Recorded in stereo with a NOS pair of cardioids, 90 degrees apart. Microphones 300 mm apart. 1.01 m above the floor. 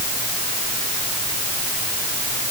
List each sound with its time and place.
Only background noise.